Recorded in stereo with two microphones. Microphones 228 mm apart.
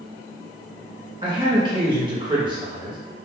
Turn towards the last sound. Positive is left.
turn(degrees=-20)  # may be behind; listen again after turning